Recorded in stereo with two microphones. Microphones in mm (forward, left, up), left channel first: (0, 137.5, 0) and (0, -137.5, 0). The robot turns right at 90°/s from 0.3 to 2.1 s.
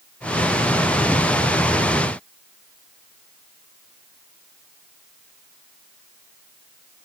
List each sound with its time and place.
Only background noise.